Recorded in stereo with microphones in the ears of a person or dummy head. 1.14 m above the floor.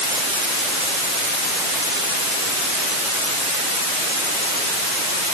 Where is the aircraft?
No aircraft in this recording.